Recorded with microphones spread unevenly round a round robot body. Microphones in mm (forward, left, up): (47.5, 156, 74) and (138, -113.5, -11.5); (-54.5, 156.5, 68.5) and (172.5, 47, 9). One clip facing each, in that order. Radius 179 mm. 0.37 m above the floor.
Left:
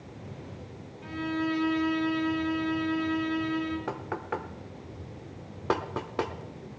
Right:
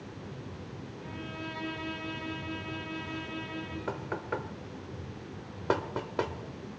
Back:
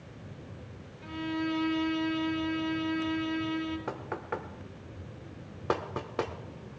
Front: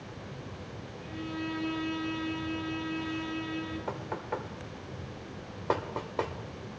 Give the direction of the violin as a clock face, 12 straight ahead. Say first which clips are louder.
Left 13 dB, back 4 dB; 7 o'clock.